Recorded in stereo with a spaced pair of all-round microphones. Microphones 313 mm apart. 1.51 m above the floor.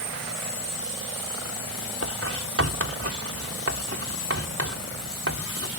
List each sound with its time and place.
2.0 s writing: 45° right (ahead or behind)